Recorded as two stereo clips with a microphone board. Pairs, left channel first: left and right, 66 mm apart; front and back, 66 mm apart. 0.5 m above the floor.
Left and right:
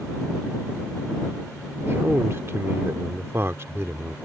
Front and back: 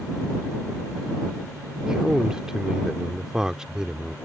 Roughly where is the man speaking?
Right.